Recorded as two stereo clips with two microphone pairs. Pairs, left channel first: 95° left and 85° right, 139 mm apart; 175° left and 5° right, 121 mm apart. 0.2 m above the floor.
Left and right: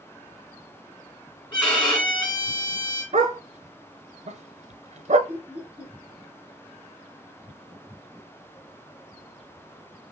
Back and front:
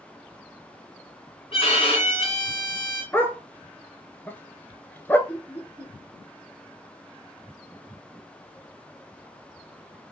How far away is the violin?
About 2.5 m.